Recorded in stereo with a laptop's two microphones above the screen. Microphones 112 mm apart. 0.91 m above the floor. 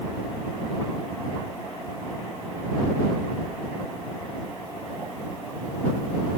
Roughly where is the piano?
I don't hear a piano.